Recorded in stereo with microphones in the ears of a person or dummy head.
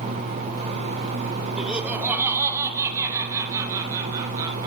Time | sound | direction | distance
1.6 | laughter | 5° right (ahead or behind) | 2.5 m